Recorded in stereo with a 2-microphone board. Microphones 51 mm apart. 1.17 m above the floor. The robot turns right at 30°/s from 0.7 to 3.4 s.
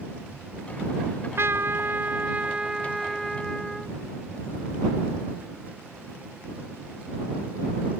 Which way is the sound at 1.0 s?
70° right.